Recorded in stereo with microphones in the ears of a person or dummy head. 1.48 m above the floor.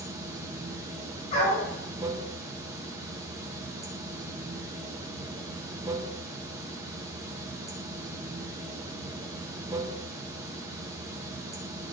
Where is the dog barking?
35° left (ahead or behind), 5 m.